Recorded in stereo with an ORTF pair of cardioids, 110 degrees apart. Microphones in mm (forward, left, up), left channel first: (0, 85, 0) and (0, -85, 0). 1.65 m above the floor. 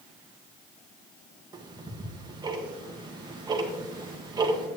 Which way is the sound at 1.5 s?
25° right.